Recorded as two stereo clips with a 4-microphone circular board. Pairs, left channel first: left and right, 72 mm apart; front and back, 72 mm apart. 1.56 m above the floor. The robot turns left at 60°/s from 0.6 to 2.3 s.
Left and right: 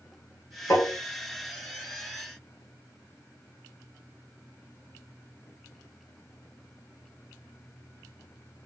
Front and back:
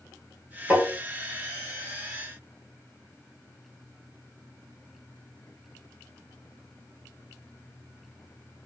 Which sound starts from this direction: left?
Tapping, at 0.7 s.